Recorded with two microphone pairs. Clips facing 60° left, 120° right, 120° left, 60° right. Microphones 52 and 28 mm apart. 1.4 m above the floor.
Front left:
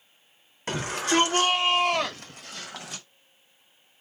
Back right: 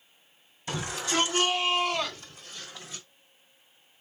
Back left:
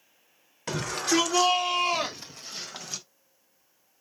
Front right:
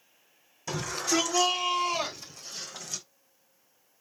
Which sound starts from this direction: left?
A shout, at 0.7 s.